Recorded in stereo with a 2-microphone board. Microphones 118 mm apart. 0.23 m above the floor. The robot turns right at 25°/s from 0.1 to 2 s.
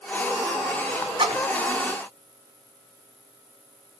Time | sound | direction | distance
1.2 | a splash | 45° right (ahead or behind) | 1.1 m